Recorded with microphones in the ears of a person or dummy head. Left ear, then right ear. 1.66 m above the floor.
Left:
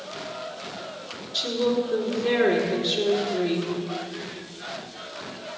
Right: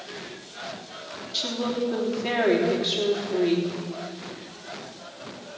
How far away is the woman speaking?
About 3.5 m.